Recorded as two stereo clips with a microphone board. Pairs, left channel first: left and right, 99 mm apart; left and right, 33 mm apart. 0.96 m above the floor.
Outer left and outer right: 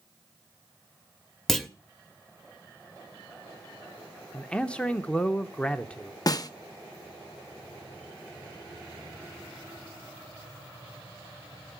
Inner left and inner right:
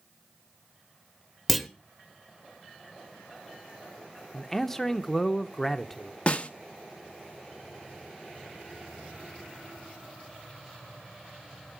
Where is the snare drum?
40° left (ahead or behind), 0.6 m.